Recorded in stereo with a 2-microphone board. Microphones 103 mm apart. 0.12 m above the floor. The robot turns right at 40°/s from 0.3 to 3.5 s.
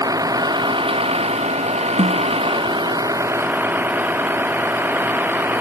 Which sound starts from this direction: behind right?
A vehicle, at 0.0 s.